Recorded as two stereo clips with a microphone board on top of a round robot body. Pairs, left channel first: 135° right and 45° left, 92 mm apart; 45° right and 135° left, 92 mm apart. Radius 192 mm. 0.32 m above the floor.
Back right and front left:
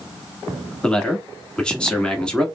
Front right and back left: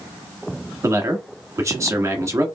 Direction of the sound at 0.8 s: 150° left.